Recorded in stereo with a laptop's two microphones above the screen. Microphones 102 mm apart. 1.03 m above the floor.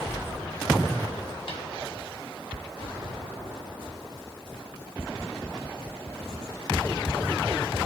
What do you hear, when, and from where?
1.5 s a snare drum: 60° left (ahead or behind), 3.5 m